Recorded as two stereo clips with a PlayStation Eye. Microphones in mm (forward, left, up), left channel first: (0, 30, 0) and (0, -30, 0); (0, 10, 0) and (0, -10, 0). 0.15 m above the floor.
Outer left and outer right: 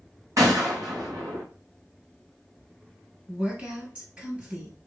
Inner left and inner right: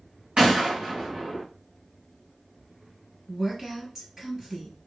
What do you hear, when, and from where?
0.4 s a gunshot: 55° right (ahead or behind), 3 m
3.3 s a woman speaking: 20° right (ahead or behind), 3 m